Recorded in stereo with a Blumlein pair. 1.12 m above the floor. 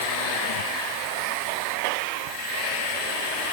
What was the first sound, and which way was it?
Only background noise.